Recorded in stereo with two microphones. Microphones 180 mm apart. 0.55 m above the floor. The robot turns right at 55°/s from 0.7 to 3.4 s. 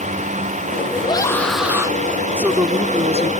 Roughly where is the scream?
Behind left.